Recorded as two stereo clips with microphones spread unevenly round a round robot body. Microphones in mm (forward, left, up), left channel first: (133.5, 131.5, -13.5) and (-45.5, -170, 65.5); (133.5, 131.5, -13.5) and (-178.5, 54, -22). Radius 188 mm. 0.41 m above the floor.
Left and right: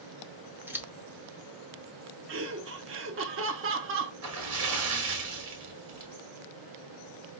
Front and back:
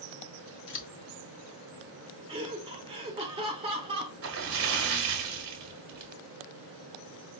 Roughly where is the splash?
Behind.